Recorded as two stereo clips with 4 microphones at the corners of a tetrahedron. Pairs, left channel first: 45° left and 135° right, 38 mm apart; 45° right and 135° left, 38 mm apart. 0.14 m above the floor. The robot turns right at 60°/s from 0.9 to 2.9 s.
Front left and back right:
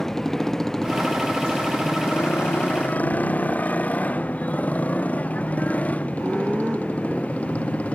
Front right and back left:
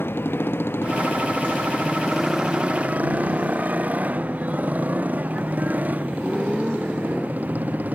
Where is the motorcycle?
35° right; by 8.0 s 95° left.